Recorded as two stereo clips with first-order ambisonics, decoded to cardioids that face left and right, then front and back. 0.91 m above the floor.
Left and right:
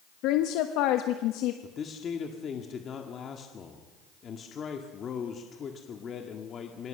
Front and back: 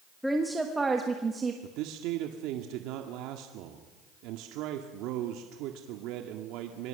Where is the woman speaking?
85° left, 1.2 m; by 1.5 s 110° left, 1.6 m.